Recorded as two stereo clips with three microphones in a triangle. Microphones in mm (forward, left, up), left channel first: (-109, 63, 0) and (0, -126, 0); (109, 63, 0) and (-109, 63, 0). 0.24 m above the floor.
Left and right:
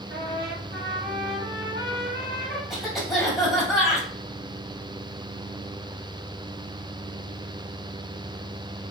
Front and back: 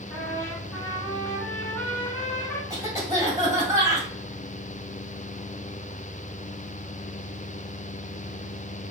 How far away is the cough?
About 1.5 m.